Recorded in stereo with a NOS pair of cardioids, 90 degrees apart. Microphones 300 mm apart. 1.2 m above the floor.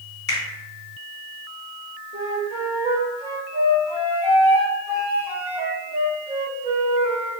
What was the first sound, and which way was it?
A finger snap, 35° left.